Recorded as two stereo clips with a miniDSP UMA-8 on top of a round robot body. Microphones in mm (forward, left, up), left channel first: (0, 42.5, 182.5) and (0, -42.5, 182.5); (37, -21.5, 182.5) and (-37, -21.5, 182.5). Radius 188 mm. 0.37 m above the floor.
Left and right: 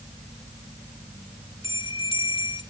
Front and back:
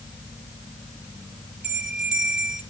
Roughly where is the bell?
Left.